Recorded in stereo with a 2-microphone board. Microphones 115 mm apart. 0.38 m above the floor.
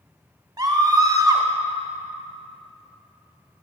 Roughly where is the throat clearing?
No throat clearing in this recording.